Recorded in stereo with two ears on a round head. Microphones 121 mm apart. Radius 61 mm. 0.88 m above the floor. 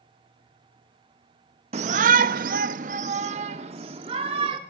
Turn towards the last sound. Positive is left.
turn(degrees=-40)  # may be behind; listen again after turning